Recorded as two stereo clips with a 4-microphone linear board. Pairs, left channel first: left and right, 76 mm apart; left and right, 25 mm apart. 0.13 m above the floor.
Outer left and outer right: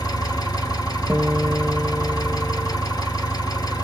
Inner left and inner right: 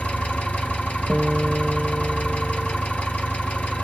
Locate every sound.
0.0 s an engine running: 60° left (ahead or behind), 1.3 m
1.1 s a guitar: 5° left (ahead or behind), 0.6 m